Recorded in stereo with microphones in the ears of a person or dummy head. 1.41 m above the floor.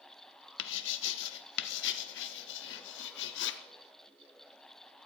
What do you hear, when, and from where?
0.6 s writing: 60° left (ahead or behind), 0.6 m